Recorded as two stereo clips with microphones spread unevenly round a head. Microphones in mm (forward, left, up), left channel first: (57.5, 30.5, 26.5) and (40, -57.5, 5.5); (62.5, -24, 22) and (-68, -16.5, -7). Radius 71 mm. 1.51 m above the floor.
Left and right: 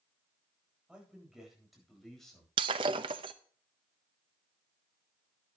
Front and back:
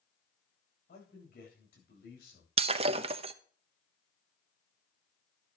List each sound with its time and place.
0.9 s a man speaking: 20° right, 9 m; by 2.5 s 5° right, 9.5 m
2.6 s breaking glass: 145° right, 0.8 m